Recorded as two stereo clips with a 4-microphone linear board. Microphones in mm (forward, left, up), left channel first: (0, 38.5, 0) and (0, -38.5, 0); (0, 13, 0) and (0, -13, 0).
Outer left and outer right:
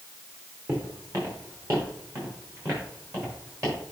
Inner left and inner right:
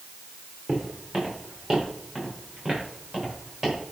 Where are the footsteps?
40° right (ahead or behind), 4.5 m; by 3.8 s 35° right (ahead or behind), 7.5 m.